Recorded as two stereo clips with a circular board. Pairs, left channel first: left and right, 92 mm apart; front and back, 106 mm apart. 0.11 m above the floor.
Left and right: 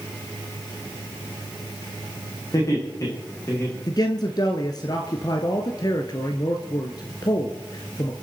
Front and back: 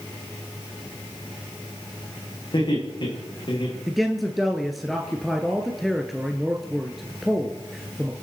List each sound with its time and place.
2.5 s laughter: 40° left, 7 m; by 3.8 s 35° left, 7.5 m
3.9 s a man speaking: 90° left, 1.5 m